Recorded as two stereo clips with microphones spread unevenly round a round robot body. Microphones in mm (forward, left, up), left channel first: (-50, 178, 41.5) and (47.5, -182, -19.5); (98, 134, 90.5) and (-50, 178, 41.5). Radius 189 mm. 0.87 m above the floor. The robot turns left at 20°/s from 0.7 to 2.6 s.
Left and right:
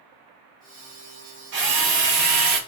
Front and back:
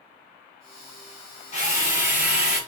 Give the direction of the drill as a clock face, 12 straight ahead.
12 o'clock.